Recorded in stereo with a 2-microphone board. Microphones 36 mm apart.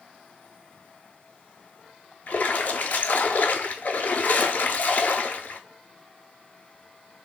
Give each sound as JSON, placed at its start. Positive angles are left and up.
{"t": 2.3, "sound": "a splash", "side_deg": 55, "distance_m": 0.5}